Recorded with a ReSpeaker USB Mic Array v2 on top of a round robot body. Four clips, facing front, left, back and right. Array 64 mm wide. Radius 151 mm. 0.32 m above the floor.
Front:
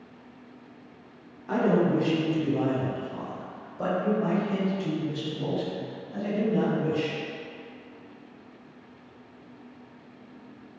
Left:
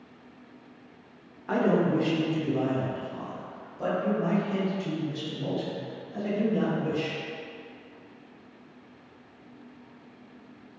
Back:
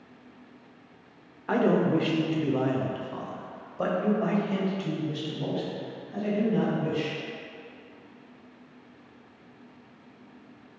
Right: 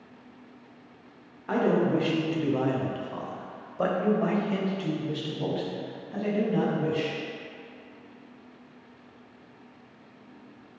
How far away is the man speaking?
About 1.4 m.